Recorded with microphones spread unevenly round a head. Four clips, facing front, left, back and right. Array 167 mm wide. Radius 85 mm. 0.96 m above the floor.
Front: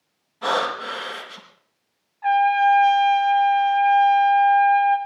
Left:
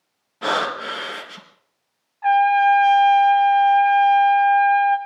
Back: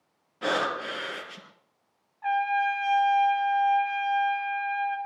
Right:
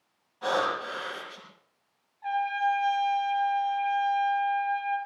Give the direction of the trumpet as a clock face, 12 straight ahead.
10 o'clock.